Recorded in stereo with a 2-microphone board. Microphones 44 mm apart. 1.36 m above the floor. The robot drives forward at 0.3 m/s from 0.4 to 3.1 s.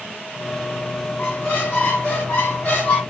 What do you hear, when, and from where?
1.2 s a squeak: 40° left (ahead or behind), 1.8 m; by 3.0 s 35° left (ahead or behind), 2 m